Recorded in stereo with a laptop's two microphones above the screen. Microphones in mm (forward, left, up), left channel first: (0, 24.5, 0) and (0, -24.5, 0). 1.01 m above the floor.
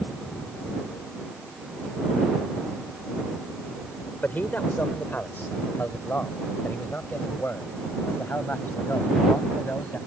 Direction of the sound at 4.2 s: 40° left (ahead or behind).